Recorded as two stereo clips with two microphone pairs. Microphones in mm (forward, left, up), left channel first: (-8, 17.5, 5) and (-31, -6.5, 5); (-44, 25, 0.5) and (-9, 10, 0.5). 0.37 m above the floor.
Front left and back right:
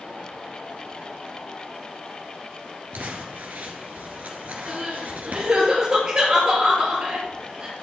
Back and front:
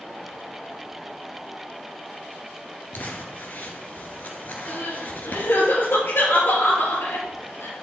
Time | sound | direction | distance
2.9 | crumpling | 165° right | 2.0 m
4.7 | crying | 165° left | 4.5 m